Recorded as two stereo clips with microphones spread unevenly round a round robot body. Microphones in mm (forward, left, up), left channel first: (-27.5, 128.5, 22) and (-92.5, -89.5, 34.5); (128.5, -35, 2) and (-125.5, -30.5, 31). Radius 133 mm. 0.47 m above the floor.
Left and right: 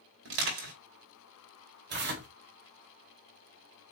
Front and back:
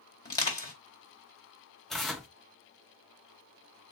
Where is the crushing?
70° right, 3 m.